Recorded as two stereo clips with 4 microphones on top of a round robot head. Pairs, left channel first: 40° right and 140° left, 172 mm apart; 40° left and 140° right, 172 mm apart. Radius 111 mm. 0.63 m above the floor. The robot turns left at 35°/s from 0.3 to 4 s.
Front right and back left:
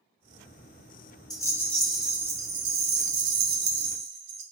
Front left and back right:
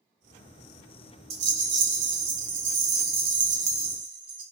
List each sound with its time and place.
1.3 s a rattle: 110° right, 0.7 m; by 4.4 s 155° left, 0.7 m